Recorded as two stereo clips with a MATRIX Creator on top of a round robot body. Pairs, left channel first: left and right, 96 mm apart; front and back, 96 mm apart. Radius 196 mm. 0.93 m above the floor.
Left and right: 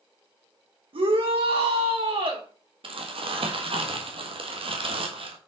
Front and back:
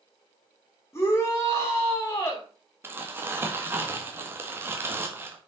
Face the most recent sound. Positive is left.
turn(degrees=-115)